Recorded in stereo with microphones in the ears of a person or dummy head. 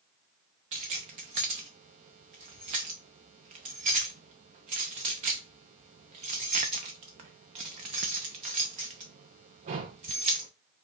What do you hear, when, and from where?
0.7 s keys jangling: 25° right (ahead or behind), 0.6 m